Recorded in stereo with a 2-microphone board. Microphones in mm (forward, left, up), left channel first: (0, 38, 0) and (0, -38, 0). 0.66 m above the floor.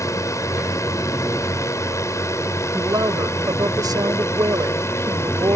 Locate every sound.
0.0 s a drone: 45° left (ahead or behind); by 5.6 s 40° left (ahead or behind)
2.7 s a woman speaking: 65° right (ahead or behind)